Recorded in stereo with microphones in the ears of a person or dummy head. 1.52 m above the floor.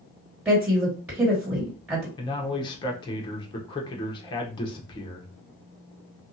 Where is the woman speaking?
15° right (ahead or behind), 1.7 m.